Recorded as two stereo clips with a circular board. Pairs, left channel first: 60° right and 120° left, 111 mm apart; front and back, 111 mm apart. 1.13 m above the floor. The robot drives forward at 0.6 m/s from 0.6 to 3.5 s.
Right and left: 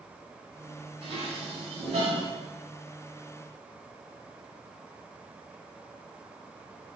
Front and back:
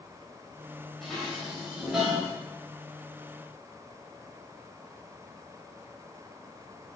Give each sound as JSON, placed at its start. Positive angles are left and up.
{"t": 1.0, "sound": "dishes clattering", "azimuth_deg": 85, "distance_m": 3.5}